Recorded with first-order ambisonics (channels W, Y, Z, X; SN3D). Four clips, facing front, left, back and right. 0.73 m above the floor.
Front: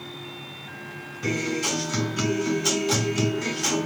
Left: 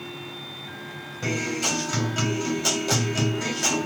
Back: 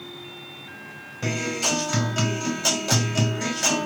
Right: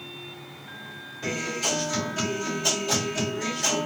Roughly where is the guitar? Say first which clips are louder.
Left 2 dB, back 1 dB; behind.